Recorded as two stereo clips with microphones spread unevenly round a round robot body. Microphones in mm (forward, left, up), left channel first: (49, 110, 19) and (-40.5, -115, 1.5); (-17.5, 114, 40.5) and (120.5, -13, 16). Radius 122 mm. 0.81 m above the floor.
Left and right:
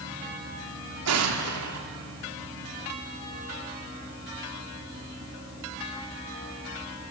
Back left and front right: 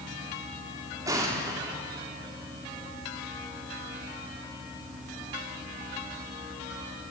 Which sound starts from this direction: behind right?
An explosion, at 1.1 s.